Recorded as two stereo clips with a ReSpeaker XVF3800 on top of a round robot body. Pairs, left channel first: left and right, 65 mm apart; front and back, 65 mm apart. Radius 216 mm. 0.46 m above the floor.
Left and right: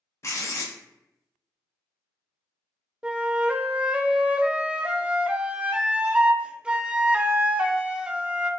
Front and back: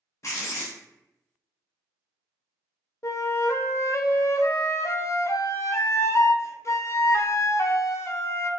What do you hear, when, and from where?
0.2 s writing: 45° left, 0.7 m
3.0 s a flute: 20° right, 0.6 m